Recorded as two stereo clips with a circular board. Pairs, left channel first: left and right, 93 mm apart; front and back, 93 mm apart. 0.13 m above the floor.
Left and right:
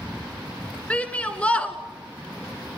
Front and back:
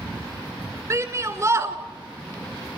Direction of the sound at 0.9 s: 155° left.